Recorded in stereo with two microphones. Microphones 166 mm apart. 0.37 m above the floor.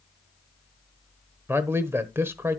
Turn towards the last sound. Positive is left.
turn(degrees=-15)  # may be behind; listen again after turning